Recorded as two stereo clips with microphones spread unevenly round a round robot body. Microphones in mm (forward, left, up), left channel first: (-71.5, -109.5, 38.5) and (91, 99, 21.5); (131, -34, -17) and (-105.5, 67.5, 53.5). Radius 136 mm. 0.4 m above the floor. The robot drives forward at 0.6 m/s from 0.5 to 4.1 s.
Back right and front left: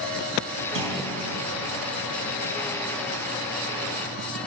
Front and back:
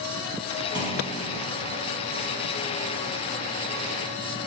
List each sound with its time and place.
0.8 s a clunk: 90° left, 4.5 m; by 1.2 s 95° left, 4.5 m